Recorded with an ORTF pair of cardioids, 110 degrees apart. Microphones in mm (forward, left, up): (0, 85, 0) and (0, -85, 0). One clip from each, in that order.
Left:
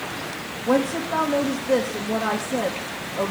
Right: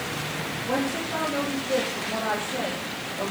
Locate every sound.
0.7 s a woman speaking: 55° left, 3 m